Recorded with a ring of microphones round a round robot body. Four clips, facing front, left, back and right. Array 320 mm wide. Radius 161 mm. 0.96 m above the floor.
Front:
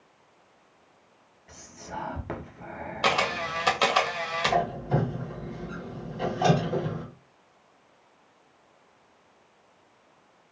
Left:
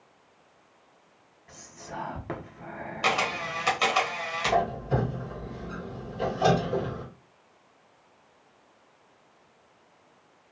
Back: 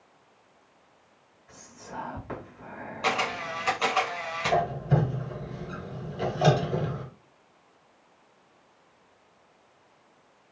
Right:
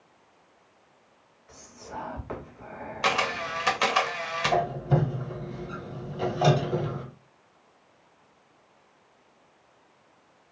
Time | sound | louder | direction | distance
1.5 | whispering | even, front 3 dB | 40° left | 1.0 m
3.0 | a camera shutter | right 1 dB, front 2 dB | 20° right | 0.8 m
4.5 | a squeak | even, back 1 dB | 125° right | 1.5 m